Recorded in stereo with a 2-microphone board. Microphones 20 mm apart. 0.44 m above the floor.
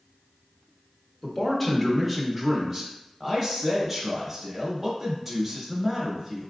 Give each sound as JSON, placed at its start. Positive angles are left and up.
{"t": 1.2, "sound": "a man speaking", "side_deg": 10, "distance_m": 1.2}
{"t": 3.2, "sound": "a man speaking", "side_deg": -10, "distance_m": 0.9}